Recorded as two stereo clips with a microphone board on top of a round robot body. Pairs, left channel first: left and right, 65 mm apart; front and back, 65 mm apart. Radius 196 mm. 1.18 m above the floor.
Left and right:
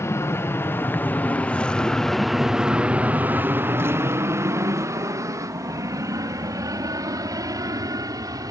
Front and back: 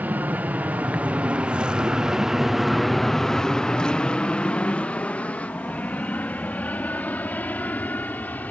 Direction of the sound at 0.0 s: 120° left.